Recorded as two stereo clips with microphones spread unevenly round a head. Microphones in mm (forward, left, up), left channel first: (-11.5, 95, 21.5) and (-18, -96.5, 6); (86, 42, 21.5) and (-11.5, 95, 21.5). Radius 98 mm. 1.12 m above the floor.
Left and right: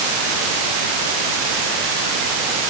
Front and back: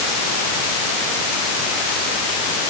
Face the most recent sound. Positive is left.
No sound to turn to.